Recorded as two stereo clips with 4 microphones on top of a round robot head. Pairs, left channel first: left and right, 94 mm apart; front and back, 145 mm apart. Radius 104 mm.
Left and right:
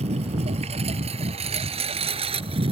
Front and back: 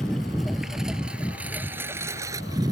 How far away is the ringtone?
No ringtone in this recording.